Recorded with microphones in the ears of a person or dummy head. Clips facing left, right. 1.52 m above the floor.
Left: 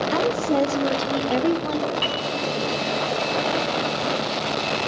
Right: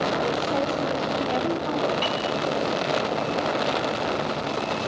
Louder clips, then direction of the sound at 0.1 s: Left 4 dB; 80° left.